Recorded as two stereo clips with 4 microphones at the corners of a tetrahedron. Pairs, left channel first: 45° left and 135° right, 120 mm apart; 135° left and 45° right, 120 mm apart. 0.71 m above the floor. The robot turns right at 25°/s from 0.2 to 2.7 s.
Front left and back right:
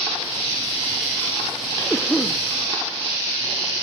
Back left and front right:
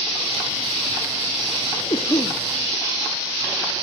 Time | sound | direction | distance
1.9 | a cough | 115° left | 0.9 m